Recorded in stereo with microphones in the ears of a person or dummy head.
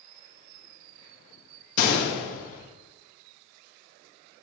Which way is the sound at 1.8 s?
60° left (ahead or behind).